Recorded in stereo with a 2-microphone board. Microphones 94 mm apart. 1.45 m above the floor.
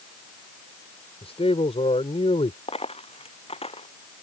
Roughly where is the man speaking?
Left.